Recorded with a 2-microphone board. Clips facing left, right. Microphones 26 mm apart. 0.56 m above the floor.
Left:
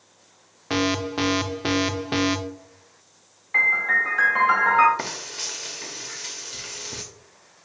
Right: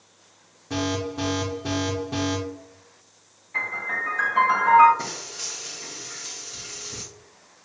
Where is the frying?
55° left (ahead or behind), 0.9 m.